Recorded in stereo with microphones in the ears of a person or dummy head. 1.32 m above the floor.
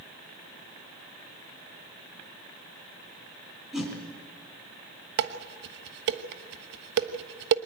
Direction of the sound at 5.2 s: 60° right (ahead or behind).